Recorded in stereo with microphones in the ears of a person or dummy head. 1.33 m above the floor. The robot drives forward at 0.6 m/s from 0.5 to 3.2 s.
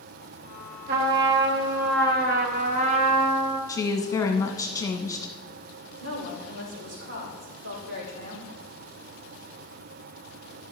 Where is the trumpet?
60° right (ahead or behind), 1.0 m; by 3.6 s 35° right (ahead or behind), 1.5 m.